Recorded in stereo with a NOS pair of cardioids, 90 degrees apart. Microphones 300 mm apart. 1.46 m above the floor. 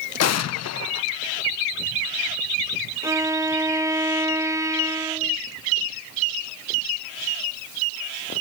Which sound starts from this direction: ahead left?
An explosion, at 0.2 s.